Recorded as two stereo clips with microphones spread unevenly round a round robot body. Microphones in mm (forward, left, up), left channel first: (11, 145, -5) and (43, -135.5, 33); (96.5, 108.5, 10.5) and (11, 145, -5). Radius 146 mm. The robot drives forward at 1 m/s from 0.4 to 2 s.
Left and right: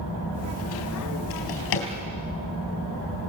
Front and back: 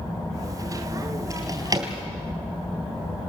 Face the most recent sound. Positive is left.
turn(degrees=115)